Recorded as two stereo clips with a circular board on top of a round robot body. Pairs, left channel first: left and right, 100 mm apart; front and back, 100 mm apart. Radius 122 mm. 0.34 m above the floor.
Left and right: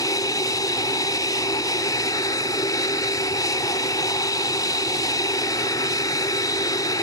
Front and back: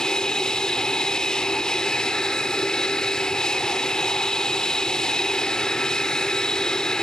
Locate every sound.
0.0 s an aircraft: 80° left